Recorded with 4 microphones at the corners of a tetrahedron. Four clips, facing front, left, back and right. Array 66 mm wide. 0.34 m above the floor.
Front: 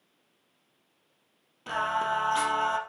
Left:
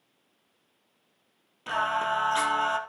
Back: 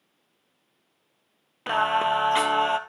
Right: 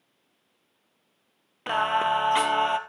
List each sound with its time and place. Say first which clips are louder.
1.7 s singing: right 3 dB, back 6 dB; 140° right, 1.3 m